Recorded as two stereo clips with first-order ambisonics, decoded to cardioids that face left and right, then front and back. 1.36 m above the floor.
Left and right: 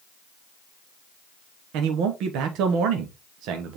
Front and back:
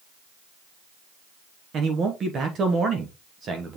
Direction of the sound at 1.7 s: 120° right.